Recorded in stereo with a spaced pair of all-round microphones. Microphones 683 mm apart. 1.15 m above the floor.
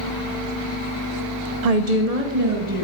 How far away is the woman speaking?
About 0.5 m.